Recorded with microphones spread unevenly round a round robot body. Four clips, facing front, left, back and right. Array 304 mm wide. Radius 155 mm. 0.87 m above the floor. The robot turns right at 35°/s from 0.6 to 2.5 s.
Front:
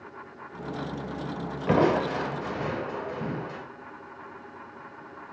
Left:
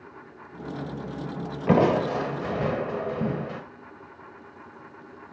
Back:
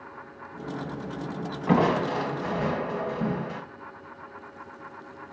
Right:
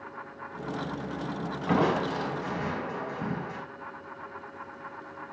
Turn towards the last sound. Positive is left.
turn(degrees=110)